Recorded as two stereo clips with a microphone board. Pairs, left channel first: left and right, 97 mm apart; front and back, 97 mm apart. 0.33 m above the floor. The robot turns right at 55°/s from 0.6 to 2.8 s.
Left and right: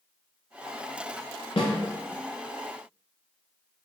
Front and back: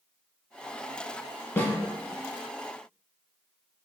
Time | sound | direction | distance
1.6 | a snare drum | 70° left | 0.8 m